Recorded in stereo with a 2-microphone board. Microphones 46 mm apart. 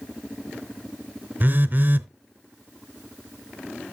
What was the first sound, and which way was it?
A phone buzzing, 45° right (ahead or behind).